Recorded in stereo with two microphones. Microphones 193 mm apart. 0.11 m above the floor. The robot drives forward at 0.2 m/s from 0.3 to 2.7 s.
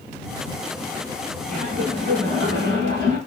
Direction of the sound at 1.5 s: 40° right (ahead or behind).